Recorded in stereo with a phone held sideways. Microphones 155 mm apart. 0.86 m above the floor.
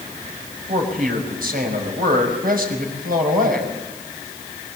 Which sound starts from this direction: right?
A man speaking, at 0.7 s.